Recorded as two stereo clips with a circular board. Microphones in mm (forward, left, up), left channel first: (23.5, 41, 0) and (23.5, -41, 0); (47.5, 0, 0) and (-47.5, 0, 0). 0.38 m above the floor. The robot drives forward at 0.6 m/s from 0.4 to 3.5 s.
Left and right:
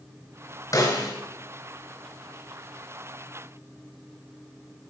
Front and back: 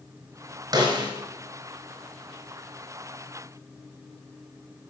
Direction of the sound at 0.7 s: 135° left.